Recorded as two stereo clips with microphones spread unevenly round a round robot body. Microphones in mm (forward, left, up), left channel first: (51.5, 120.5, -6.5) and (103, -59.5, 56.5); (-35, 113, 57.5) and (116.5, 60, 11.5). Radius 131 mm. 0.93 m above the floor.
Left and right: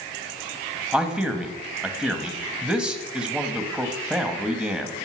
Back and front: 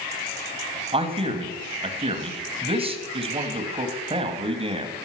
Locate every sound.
0.9 s a man speaking: 20° left, 1.7 m